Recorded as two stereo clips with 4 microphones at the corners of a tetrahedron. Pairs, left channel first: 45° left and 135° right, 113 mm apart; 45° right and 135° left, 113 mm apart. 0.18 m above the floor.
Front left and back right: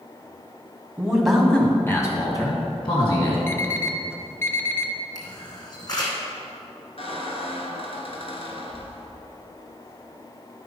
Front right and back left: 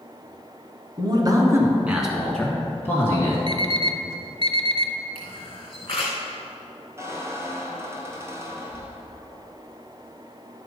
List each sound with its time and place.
1.0 s a man speaking: 150° left, 1.9 m; by 3.4 s 15° left, 3 m
3.5 s an alarm clock: 110° left, 0.7 m
5.2 s a camera shutter: 5° right, 3 m
7.0 s a squeak: 70° left, 1.3 m